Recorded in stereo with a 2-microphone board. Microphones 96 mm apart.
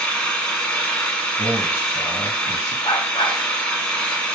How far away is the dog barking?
About 1.0 m.